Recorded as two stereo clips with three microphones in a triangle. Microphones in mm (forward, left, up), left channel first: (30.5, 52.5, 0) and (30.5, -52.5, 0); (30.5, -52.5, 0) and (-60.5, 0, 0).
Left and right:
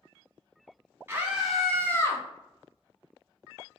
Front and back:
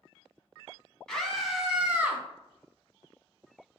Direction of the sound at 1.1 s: 105° right.